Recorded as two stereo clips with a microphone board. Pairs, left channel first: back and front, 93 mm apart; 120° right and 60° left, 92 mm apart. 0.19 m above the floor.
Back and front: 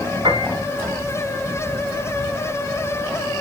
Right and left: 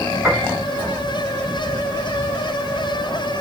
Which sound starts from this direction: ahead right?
A piano, at 0.2 s.